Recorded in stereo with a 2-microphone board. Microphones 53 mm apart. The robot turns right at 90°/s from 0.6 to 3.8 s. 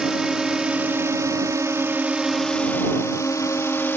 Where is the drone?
10° right (ahead or behind); by 4.0 s 40° left (ahead or behind).